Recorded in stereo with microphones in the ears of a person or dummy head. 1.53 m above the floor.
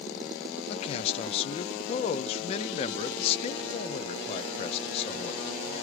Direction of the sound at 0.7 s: 40° left (ahead or behind).